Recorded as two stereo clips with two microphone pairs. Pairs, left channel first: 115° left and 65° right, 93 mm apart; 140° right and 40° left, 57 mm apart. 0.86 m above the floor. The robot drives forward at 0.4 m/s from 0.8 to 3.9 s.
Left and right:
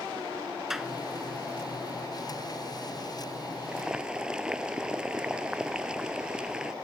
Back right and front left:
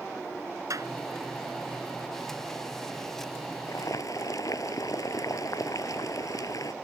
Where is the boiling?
145° right; by 6.7 s 150° right.